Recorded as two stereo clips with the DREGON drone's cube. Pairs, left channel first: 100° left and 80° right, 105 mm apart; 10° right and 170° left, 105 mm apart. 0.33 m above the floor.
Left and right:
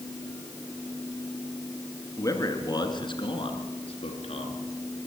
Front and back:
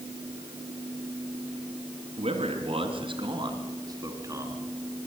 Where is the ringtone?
I don't hear a ringtone.